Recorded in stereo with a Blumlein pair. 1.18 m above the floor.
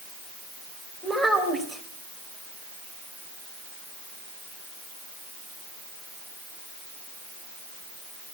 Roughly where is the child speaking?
Ahead.